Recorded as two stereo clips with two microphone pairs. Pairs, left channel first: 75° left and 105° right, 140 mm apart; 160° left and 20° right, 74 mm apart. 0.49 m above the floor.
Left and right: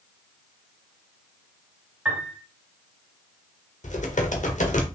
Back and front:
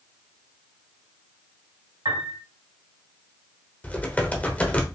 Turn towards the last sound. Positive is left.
turn(degrees=90)